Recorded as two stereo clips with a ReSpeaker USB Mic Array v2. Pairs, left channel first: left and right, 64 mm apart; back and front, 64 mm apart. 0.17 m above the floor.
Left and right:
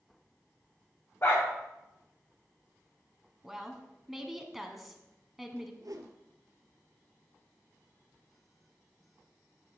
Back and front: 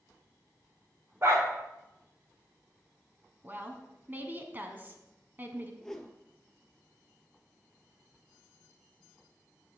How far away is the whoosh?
About 0.9 m.